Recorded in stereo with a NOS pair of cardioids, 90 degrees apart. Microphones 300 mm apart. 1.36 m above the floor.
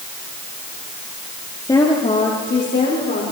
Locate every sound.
1.6 s a woman speaking: 10° left, 3 m; by 3.2 s 35° left, 4.5 m